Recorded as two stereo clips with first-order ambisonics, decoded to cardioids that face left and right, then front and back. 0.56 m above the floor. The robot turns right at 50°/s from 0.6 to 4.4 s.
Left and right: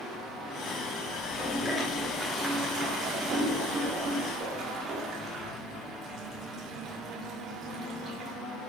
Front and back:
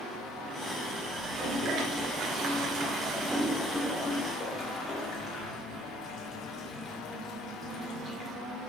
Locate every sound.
1.2 s a toilet flushing: 140° left, 1.5 m; by 8.3 s 55° right, 1.5 m